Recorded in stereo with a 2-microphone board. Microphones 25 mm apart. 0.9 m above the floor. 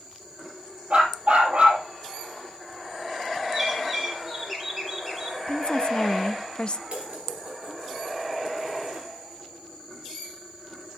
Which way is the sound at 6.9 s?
60° right (ahead or behind).